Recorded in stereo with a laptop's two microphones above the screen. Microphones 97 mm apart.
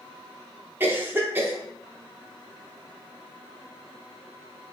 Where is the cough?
20° right (ahead or behind), 0.6 m.